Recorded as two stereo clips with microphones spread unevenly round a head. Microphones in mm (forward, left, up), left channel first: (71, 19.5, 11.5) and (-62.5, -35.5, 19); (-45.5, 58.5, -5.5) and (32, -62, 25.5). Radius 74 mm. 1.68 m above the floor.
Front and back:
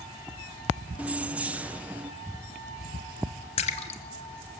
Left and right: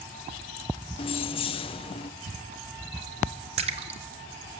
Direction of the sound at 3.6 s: 25° right.